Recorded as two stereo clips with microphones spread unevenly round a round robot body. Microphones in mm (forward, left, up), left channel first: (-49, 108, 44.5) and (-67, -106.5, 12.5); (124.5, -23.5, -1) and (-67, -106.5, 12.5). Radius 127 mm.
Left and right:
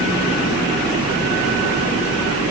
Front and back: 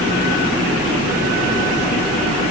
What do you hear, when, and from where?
Only background noise.